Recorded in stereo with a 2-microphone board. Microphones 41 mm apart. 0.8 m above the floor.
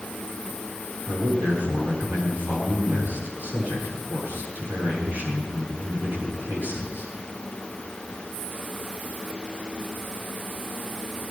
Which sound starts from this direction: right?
A man speaking, at 1.1 s.